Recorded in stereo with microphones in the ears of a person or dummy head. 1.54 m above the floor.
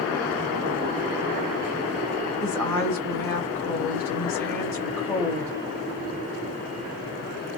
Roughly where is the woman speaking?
Centre.